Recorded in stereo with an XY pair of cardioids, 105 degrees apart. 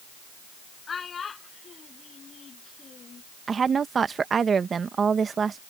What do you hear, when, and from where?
0.9 s a child speaking: 40° left; by 3.2 s 45° left
3.5 s a woman speaking: 40° right